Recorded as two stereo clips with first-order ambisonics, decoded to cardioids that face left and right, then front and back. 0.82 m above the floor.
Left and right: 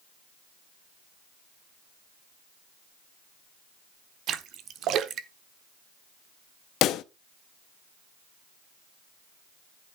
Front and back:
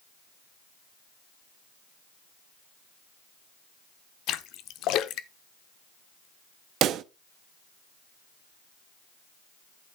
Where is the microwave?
No microwave in this recording.